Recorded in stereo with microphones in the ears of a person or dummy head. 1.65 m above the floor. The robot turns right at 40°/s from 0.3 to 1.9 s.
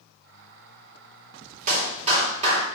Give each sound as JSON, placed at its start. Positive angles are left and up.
{"t": 1.7, "sound": "a clap", "side_deg": -45, "distance_m": 3.0}